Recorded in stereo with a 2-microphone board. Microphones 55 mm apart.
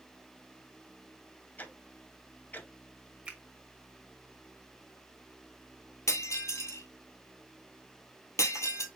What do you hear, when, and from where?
1.6 s ticking: 30° left (ahead or behind), 0.7 m
3.2 s a finger snap: 20° right (ahead or behind), 1.5 m
6.1 s breaking glass: 60° left (ahead or behind), 1.2 m